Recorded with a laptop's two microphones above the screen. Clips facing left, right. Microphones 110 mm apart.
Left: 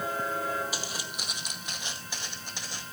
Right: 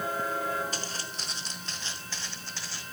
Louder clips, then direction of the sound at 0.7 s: Even; 10° left (ahead or behind).